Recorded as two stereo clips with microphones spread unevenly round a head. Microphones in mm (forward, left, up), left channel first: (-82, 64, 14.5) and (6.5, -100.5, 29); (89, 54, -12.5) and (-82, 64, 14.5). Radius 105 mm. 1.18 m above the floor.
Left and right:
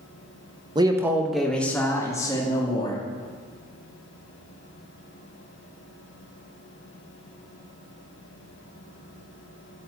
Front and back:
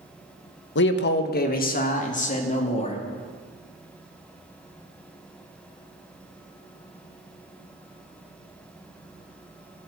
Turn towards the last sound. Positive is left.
turn(degrees=50)